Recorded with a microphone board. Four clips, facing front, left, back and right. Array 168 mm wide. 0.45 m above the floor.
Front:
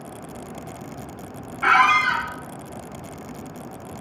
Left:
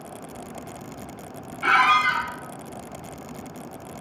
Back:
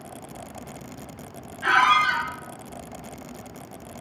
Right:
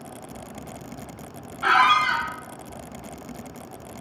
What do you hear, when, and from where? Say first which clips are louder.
1.6 s a squeak: right 1 dB, front 2 dB; 25° right, 0.6 m